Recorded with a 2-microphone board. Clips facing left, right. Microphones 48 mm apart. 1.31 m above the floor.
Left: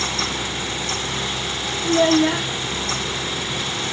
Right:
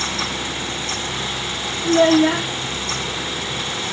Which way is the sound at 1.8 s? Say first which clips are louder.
Right 3 dB; 15° right (ahead or behind).